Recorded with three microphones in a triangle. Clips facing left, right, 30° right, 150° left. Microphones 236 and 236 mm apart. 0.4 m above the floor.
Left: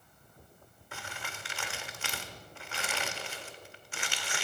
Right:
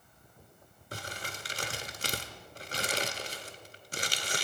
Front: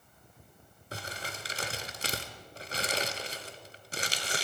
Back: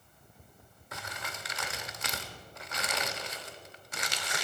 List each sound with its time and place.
0.9 s crumpling: 65° right, 0.9 m